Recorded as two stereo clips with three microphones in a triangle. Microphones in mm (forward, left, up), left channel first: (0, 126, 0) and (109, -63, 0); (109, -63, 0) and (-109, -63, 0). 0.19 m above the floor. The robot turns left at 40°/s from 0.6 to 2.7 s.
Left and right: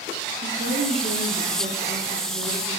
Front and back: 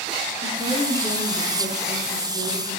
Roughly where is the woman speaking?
Ahead right.